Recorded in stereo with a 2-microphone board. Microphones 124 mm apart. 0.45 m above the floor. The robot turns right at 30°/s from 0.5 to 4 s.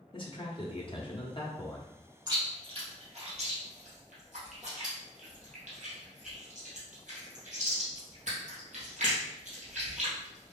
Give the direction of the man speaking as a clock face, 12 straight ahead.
9 o'clock.